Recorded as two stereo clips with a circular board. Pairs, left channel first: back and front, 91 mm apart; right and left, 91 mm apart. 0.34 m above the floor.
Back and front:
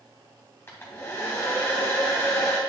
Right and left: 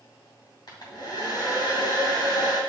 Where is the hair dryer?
120° right, 2 m.